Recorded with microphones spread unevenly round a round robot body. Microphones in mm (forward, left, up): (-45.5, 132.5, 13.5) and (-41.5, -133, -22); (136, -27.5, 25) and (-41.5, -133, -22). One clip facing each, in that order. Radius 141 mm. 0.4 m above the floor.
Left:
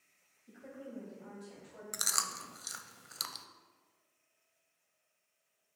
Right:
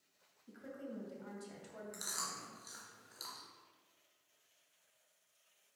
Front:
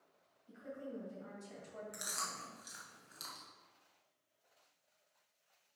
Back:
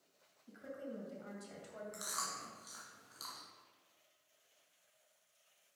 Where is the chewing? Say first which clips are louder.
Left 2 dB, even; 105° left, 0.6 m.